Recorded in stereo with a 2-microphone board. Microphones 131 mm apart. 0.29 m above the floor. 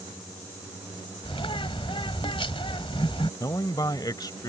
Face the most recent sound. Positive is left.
turn(degrees=30)  # may be behind; listen again after turning